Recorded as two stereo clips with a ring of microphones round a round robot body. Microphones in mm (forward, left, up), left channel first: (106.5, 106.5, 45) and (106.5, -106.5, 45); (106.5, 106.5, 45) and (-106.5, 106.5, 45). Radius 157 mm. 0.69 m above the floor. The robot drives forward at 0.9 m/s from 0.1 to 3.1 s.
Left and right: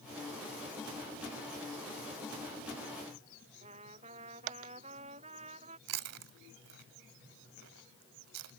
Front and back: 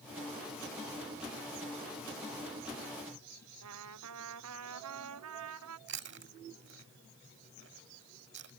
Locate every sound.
3.6 s a trumpet: 160° right
5.9 s chewing: 125° right